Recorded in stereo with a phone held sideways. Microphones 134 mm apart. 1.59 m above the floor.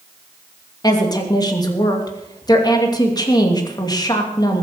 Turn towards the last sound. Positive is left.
turn(degrees=30)  # may be behind; listen again after turning